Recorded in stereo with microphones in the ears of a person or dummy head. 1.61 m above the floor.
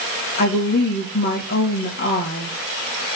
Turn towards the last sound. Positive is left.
turn(degrees=45)  # may be behind; listen again after turning